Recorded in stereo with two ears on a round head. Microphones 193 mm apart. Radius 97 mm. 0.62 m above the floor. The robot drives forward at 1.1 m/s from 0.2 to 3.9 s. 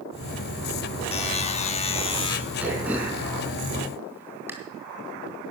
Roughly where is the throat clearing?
Centre.